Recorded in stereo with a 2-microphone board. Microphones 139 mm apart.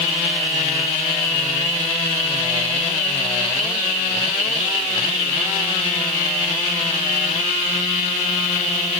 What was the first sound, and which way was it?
Only background noise.